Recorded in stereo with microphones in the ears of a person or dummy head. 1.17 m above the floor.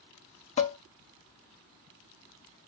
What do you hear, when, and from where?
0.6 s dishes clattering: 40° left (ahead or behind), 1.3 m